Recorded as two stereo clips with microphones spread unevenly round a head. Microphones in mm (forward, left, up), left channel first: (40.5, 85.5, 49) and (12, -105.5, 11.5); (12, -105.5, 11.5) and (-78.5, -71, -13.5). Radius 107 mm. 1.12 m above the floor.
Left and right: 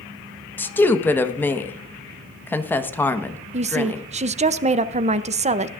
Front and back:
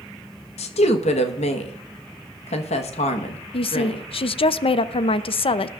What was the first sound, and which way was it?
A woman speaking, straight ahead.